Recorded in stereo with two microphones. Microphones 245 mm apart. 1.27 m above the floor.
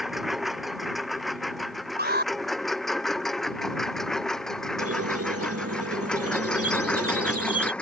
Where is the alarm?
40° right (ahead or behind).